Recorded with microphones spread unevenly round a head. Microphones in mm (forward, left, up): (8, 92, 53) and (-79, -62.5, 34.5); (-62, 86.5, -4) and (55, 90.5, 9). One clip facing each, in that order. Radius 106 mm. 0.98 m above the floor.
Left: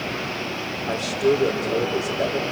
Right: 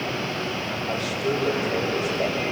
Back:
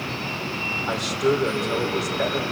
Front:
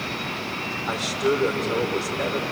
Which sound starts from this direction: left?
A man speaking, at 0.9 s.